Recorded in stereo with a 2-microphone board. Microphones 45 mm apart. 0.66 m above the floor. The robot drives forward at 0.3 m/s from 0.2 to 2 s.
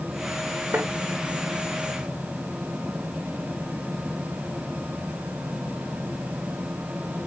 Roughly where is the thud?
Right.